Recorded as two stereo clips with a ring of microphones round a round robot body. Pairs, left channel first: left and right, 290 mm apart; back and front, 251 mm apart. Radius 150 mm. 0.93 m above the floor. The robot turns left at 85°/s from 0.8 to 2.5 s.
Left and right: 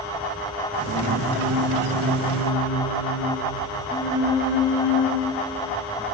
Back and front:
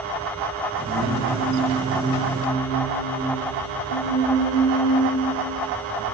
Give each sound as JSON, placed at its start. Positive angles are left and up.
{"t": 0.8, "sound": "singing", "azimuth_deg": -30, "distance_m": 5.5}